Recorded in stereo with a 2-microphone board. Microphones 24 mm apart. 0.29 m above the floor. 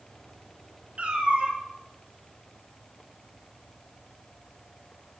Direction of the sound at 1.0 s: 70° right (ahead or behind).